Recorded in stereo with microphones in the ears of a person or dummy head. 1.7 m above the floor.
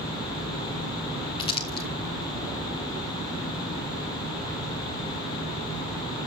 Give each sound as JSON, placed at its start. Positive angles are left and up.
{"t": 1.4, "sound": "crumpling", "side_deg": 30, "distance_m": 2.0}